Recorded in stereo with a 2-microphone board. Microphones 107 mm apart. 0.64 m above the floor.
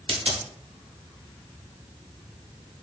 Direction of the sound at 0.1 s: 60° right (ahead or behind).